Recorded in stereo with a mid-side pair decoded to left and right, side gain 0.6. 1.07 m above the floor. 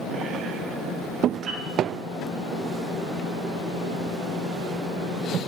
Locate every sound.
1.5 s a piano: 45° right, 3.5 m